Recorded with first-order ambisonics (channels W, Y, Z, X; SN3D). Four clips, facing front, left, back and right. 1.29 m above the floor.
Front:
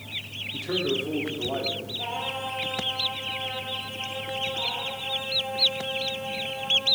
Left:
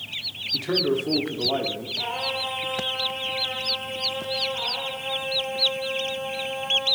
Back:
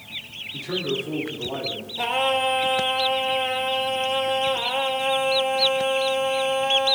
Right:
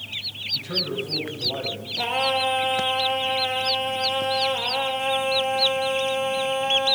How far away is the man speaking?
About 4 m.